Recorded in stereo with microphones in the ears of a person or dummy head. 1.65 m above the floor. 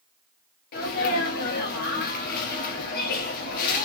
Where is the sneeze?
50° left (ahead or behind), 0.8 m.